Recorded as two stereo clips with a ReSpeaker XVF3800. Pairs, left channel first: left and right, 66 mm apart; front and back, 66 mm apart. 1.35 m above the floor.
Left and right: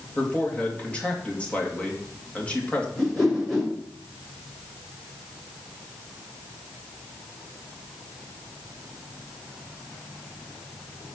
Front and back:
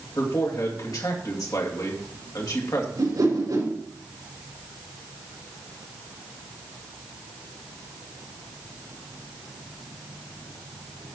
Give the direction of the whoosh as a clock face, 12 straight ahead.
6 o'clock.